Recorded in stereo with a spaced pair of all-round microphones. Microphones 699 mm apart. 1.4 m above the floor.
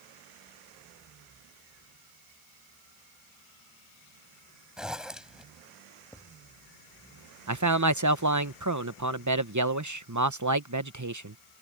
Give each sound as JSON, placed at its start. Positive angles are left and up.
{"t": 4.8, "sound": "a zipper", "side_deg": 0}
{"t": 6.1, "sound": "writing", "side_deg": 5}
{"t": 7.5, "sound": "a man speaking", "side_deg": -25}